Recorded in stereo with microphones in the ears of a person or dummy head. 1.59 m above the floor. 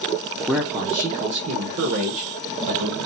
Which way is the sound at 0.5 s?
Centre (ahead or behind).